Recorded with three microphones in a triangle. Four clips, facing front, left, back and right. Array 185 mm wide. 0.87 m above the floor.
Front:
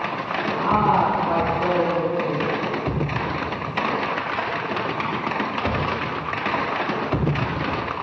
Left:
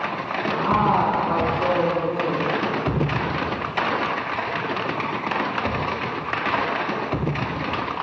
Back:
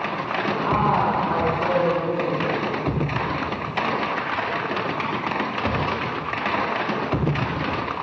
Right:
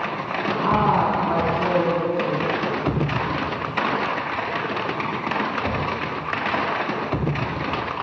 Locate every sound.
0.6 s a woman speaking: 70° right, 9.5 m